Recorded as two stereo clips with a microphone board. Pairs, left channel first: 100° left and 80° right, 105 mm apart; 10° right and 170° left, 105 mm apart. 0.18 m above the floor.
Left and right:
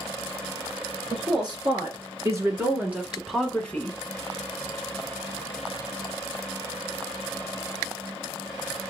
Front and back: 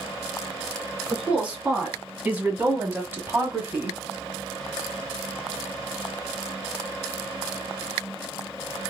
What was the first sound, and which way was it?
A woman speaking, 115° right.